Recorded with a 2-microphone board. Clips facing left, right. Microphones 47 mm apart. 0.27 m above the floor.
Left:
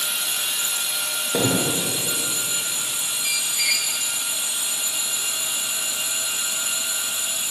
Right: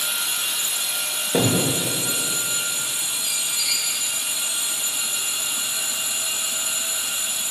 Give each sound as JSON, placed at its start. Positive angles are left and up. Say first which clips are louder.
{"t": 1.3, "sound": "a thud", "louder": "right 1 dB", "side_deg": 0, "distance_m": 9.0}
{"t": 3.2, "sound": "a squeak", "louder": "left 5 dB", "side_deg": 55, "distance_m": 1.3}